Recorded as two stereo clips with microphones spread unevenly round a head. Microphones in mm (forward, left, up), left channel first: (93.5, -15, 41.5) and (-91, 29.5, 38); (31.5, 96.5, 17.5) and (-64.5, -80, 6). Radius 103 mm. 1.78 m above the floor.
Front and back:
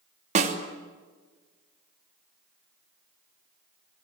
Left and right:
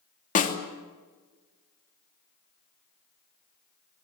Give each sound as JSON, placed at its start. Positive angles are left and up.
{"t": 0.3, "sound": "a snare drum", "azimuth_deg": 110, "distance_m": 3.0}